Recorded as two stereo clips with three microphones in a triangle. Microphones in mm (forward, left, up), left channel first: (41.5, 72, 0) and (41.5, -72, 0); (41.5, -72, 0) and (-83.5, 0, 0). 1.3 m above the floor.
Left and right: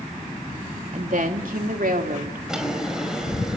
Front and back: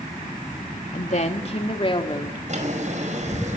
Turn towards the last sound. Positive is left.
turn(degrees=-175)